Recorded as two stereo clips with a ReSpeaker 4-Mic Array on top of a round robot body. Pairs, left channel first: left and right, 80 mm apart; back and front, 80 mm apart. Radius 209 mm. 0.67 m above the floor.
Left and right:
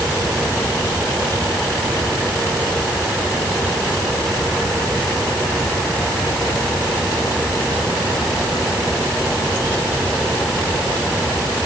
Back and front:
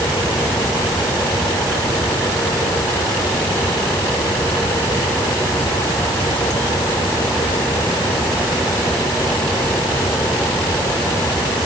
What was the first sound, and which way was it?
Only background noise.